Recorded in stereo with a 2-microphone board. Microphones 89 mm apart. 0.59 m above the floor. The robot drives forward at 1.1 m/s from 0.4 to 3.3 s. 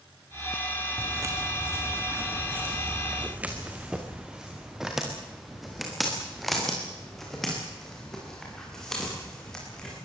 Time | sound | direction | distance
1.0 | footsteps | 35° right (ahead or behind) | 3 m